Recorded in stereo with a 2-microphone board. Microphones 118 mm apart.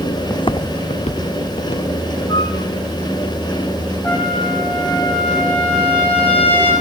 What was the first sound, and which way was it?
Footsteps, 25° left (ahead or behind).